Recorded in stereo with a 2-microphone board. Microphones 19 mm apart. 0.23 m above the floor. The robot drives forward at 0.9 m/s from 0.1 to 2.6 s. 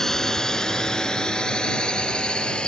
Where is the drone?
25° left (ahead or behind); by 2.7 s 60° left (ahead or behind).